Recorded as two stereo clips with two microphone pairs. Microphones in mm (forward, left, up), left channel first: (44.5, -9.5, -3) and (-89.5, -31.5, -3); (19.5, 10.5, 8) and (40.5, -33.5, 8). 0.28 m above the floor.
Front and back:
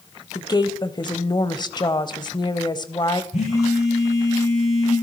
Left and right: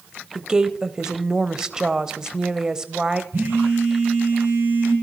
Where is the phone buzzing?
25° right, 8.5 m.